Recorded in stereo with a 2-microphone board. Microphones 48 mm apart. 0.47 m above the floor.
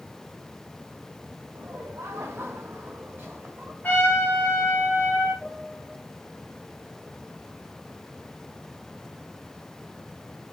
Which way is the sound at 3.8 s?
35° left (ahead or behind).